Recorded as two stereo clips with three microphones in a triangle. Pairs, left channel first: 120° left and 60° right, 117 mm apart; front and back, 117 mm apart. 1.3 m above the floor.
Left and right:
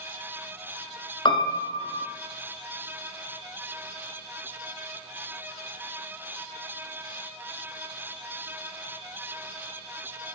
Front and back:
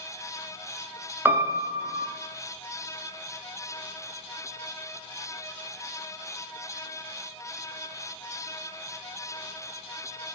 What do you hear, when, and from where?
1.2 s a piano: 115° left, 0.7 m